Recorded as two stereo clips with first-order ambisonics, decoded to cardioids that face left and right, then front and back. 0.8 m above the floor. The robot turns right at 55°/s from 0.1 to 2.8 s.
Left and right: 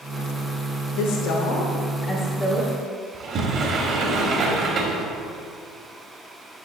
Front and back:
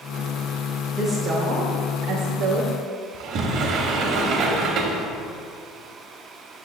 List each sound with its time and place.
1.0 s a woman speaking: 90° left, 0.8 m; by 2.7 s 170° right, 0.8 m
3.1 s a sliding door: 140° right, 0.8 m